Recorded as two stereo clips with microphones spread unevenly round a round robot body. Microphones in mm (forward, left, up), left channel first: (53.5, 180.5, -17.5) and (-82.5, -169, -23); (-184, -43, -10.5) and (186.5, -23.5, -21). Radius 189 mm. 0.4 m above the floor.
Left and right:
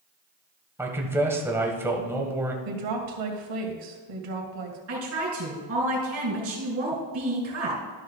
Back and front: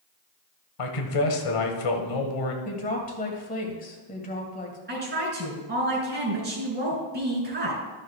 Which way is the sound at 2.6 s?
110° right.